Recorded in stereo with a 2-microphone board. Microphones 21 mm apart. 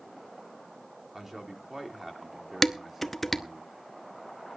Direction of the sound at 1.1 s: 15° right (ahead or behind).